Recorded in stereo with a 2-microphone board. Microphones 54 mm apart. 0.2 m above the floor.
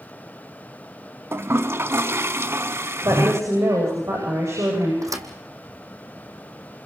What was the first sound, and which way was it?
A toilet flushing, 50° right (ahead or behind).